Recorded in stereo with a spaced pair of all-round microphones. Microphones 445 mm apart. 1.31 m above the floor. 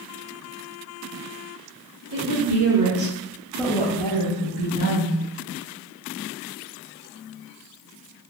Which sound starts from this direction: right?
A woman speaking, at 2.1 s.